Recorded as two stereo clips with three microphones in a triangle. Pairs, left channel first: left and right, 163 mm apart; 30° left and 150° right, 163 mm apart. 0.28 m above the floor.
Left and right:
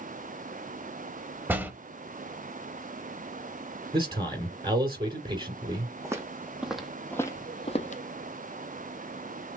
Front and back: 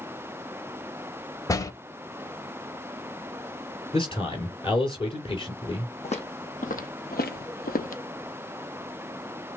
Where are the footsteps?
20° right, 1.0 m; by 8.0 s 60° left, 0.7 m.